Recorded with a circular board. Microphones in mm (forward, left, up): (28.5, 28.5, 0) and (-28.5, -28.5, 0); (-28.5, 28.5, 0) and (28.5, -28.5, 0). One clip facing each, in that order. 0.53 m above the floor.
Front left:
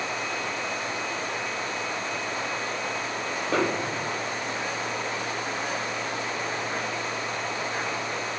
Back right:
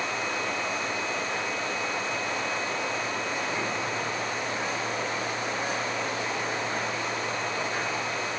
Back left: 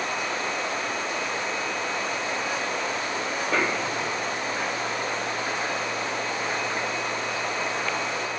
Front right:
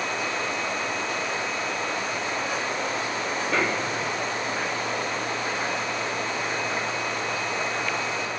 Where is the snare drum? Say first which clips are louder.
Front left 4 dB, even; 45° left.